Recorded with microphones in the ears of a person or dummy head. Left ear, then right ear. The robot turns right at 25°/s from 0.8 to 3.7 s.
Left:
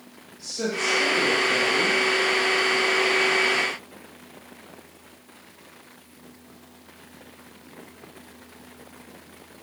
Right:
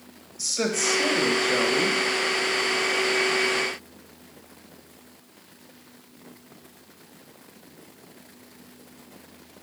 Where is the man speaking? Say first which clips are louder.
Right 2 dB; 60° right (ahead or behind), 1.6 m; by 2.0 s 75° right (ahead or behind), 1.6 m.